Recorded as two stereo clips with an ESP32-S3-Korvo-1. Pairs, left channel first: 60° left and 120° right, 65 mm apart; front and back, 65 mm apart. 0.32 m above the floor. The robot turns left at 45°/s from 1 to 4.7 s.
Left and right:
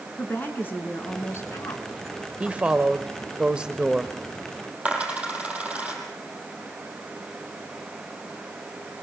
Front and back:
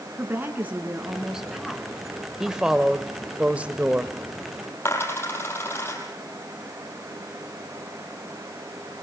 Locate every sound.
0.2 s a woman speaking: 115° left, 3.5 m; by 1.8 s 80° left, 3.5 m
2.4 s a woman speaking: 110° right, 1.1 m; by 4.2 s 170° left, 1.1 m
4.8 s a dropped coin: 50° right, 5 m